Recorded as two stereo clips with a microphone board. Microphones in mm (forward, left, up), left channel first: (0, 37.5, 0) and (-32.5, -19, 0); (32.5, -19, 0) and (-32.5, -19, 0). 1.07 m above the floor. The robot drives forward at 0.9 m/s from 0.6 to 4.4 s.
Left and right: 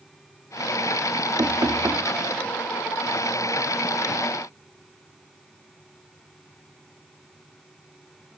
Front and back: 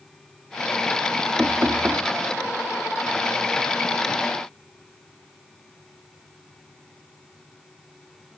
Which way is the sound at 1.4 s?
115° right.